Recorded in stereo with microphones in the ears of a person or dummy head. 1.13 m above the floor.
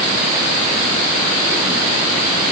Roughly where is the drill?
I don't hear a drill.